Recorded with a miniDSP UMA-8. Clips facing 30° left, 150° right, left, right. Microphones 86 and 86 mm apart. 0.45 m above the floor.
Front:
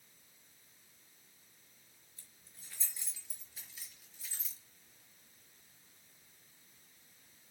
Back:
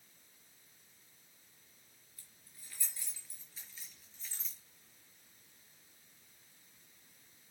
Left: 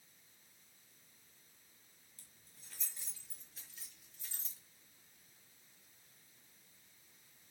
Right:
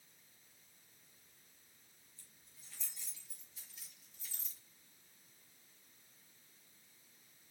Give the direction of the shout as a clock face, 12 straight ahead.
No shout in this recording.